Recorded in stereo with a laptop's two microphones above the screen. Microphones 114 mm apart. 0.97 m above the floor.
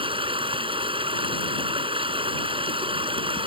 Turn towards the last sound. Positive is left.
turn(degrees=-50)  # may be behind; listen again after turning